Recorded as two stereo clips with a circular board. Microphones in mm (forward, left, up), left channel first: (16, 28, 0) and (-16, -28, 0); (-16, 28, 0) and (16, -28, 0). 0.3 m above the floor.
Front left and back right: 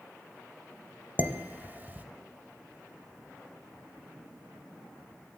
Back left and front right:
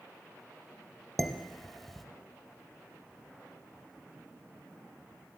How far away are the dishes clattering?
About 0.7 m.